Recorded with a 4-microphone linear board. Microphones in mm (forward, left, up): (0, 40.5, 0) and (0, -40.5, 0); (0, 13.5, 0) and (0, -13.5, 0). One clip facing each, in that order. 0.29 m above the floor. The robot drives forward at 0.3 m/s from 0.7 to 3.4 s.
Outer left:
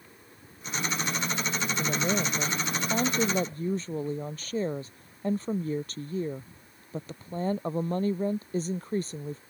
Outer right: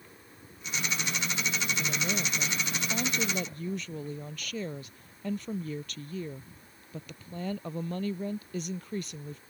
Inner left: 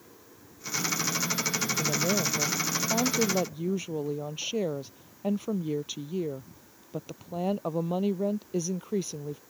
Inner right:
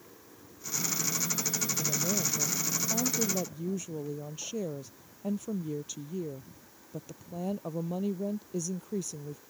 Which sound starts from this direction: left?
A woman speaking, at 1.8 s.